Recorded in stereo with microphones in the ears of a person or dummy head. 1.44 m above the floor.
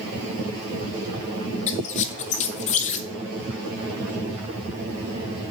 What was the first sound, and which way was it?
A squeak, 40° left (ahead or behind).